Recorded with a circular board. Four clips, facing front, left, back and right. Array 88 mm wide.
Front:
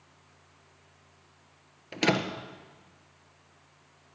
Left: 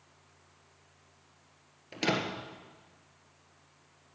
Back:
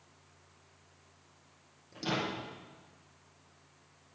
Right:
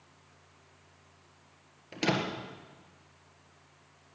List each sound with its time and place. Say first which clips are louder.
1.9 s a door slam: right 1 dB, front 7 dB; 5° right, 1.5 m